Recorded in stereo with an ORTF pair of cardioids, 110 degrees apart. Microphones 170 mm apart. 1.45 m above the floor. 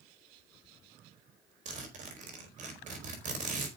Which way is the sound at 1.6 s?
50° right.